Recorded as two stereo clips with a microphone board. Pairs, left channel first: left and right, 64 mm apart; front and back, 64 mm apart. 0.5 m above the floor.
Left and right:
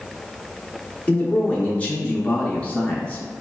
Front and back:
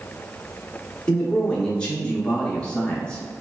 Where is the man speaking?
55° left, 0.8 m.